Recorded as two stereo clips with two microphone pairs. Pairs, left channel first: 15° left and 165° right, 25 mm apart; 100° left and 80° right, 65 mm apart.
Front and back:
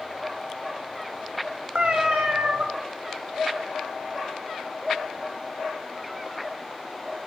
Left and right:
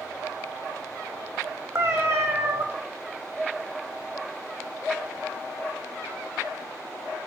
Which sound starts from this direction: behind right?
A cat meowing, at 1.8 s.